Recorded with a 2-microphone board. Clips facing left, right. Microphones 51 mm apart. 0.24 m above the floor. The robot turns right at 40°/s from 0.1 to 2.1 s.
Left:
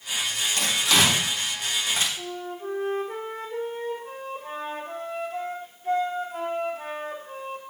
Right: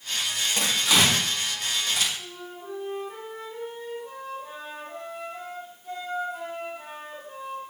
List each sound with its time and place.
0.6 s tearing paper: 25° right (ahead or behind), 5 m; by 2.1 s 35° left (ahead or behind), 5 m
2.2 s a flute: 70° left (ahead or behind), 5 m